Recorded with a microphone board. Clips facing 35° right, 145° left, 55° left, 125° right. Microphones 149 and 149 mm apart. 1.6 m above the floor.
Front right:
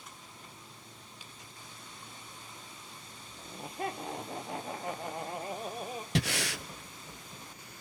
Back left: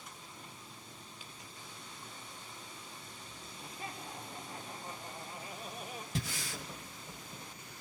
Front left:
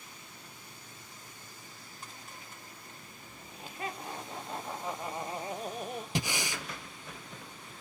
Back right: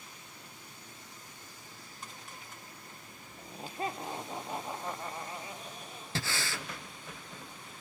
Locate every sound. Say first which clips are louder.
3.4 s laughter: front right 10 dB, back right 4 dB; 70° right, 1.7 m; by 6.0 s 30° left, 1.1 m
6.2 s breathing: front right 8 dB, even; 20° right, 0.7 m